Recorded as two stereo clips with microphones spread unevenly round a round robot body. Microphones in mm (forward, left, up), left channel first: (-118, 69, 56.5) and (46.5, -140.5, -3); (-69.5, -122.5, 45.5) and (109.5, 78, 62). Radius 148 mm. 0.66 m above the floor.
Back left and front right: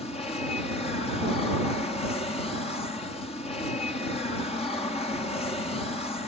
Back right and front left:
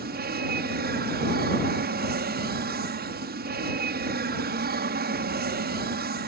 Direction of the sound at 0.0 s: 55° left.